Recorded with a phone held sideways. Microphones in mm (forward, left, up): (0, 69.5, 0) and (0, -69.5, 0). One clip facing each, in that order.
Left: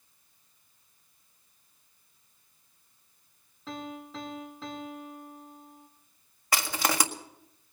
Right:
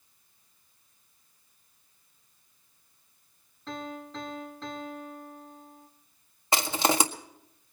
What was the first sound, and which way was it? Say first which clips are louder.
A piano: right 1 dB; 5° left (ahead or behind).